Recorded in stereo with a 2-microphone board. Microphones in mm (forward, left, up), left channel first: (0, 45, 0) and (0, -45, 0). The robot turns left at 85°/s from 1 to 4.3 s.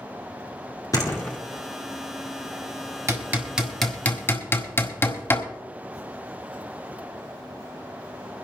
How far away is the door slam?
About 2 m.